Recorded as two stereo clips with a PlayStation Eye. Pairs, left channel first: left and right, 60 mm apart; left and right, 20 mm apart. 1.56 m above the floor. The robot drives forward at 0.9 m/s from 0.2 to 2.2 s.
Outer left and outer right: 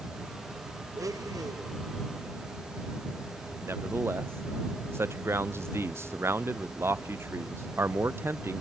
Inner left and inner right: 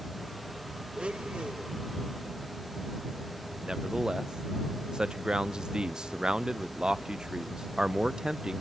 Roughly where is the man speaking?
Right.